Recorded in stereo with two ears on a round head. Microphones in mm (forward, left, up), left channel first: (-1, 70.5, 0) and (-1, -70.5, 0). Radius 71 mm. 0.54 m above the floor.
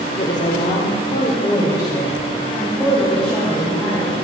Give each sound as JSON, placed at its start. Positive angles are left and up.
{"t": 0.2, "sound": "a woman speaking", "side_deg": 55, "distance_m": 1.3}